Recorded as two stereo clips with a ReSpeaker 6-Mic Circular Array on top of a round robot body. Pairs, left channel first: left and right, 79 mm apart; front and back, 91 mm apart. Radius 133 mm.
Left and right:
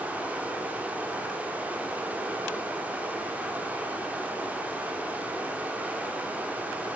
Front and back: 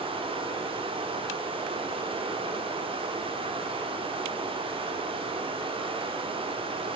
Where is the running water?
160° right, 1.5 m.